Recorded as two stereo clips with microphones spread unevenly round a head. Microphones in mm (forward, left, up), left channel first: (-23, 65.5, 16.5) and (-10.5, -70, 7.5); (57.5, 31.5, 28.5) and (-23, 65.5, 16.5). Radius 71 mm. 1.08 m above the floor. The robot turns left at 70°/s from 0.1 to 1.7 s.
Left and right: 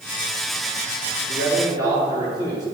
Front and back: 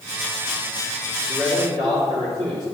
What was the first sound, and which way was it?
A man speaking, 115° right.